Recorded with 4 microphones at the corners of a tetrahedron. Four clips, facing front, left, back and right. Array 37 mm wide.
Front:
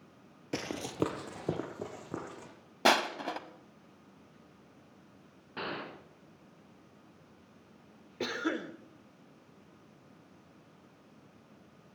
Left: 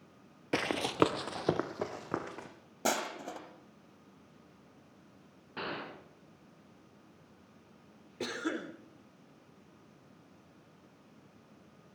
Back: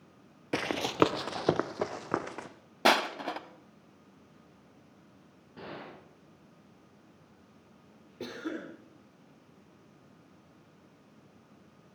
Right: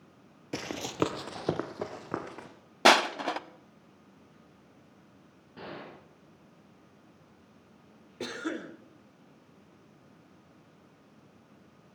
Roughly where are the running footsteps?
Behind left.